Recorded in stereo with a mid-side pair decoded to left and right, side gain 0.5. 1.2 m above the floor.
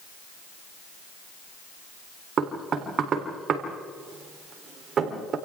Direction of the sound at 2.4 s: 50° right.